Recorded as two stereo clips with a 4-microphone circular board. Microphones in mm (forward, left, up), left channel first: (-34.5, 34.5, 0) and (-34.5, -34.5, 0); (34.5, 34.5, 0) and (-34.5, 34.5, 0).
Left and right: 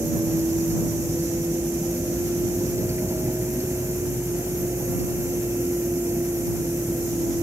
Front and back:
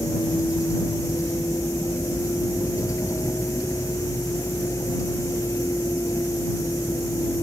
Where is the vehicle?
40° right.